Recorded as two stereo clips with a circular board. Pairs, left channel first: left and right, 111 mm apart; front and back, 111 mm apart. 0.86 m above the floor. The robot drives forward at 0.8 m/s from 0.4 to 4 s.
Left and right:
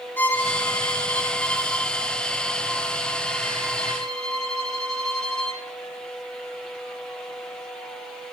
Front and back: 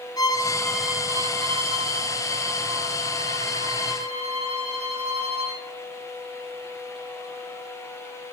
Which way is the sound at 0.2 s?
25° left.